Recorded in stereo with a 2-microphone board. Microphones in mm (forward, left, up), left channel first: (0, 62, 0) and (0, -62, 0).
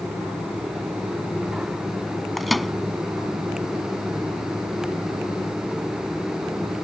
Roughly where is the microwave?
Centre.